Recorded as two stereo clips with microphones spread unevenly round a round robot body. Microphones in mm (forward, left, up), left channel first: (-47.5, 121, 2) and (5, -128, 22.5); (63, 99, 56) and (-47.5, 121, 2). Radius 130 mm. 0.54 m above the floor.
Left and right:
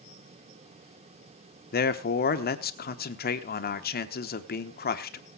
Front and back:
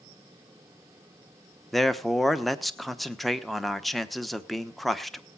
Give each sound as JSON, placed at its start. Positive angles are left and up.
{"t": 1.7, "sound": "a man speaking", "azimuth_deg": 115, "distance_m": 1.0}